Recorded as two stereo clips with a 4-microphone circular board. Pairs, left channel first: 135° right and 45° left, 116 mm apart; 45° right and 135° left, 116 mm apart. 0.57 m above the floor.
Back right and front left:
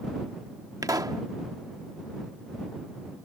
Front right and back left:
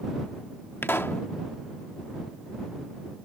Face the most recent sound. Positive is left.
turn(degrees=15)